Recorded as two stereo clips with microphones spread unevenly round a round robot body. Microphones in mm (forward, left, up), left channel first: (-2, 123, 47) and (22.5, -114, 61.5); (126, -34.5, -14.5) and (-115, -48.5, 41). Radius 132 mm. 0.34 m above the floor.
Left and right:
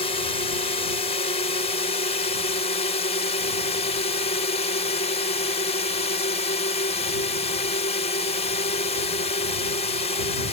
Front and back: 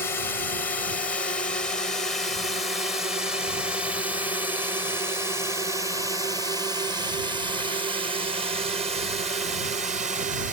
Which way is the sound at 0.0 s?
55° left.